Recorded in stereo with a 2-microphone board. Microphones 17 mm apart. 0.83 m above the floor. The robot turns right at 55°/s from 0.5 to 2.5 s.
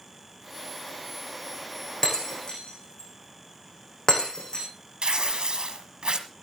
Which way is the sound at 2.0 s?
15° left (ahead or behind).